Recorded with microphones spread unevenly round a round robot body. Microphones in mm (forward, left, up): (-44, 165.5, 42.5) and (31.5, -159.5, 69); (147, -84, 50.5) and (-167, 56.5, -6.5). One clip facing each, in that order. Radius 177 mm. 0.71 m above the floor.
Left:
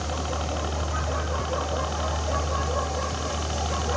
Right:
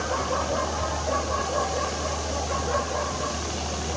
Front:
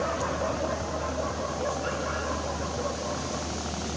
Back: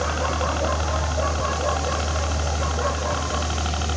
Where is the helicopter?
150° left; by 4.0 s 155° left.